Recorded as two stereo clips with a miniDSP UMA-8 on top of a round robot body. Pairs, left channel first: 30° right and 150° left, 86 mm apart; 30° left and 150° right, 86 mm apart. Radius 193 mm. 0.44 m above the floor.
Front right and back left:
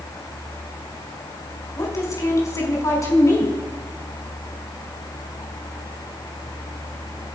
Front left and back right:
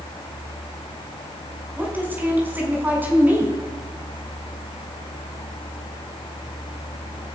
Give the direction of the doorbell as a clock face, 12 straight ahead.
I don't hear a doorbell.